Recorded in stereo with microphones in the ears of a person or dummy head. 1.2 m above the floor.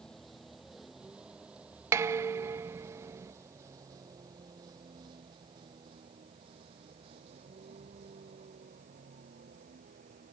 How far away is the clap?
I don't hear a clap.